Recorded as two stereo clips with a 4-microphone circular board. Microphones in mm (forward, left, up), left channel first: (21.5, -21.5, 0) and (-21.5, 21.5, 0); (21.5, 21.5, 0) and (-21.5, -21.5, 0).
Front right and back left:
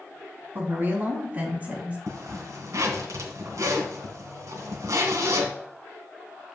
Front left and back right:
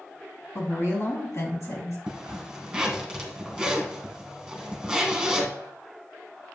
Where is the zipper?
145° left, 1.6 m.